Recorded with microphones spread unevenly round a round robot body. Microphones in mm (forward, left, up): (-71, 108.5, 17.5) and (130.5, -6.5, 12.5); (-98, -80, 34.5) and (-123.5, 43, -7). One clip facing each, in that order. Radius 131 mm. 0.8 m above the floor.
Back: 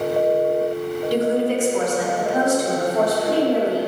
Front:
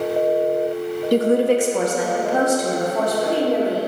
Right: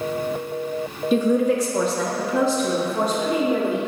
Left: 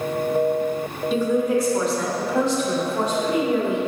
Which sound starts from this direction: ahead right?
A woman speaking, at 1.1 s.